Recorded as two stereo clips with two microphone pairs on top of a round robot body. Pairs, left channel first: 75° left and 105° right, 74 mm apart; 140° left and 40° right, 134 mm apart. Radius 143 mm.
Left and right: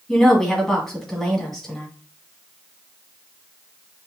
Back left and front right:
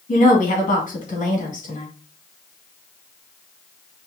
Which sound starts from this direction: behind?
A woman speaking, at 0.1 s.